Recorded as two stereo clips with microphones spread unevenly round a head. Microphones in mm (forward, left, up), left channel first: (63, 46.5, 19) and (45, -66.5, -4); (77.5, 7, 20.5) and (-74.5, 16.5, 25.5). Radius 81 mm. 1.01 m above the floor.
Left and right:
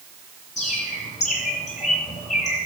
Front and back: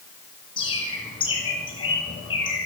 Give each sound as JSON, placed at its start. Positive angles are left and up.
{"t": 0.6, "sound": "a bird", "azimuth_deg": 60, "distance_m": 6.0}